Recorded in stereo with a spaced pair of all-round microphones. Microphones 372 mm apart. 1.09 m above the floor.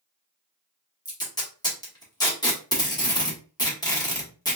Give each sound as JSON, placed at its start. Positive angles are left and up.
{"t": 1.1, "sound": "tape being pulled", "side_deg": 10, "distance_m": 1.3}